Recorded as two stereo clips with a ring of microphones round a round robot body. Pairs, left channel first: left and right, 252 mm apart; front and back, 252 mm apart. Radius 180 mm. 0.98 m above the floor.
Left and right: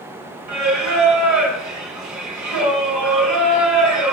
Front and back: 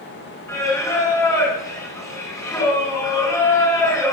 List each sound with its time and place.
0.5 s singing: 90° right, 5.5 m